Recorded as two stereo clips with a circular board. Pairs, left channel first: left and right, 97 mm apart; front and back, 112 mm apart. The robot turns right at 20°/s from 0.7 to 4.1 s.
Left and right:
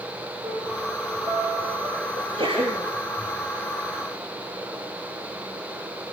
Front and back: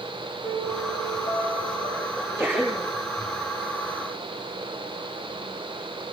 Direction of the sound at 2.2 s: 90° right.